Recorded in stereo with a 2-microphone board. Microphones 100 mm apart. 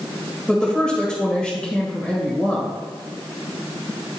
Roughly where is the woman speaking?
Centre.